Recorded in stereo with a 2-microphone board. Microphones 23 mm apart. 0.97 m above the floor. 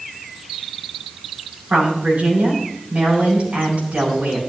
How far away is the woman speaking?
About 9 m.